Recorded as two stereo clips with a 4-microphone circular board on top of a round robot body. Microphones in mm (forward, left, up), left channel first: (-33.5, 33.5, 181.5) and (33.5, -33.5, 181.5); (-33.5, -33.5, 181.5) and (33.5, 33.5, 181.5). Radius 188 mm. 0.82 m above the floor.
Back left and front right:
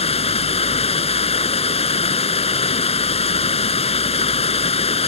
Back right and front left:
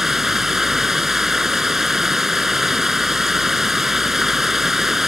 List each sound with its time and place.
0.0 s running water: 130° left